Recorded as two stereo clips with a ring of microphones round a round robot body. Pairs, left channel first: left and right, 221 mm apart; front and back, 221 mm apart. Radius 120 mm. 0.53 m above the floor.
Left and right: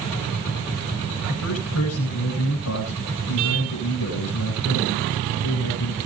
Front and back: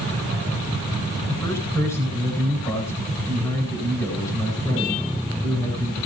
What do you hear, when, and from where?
1.3 s a man speaking: 80° left, 9 m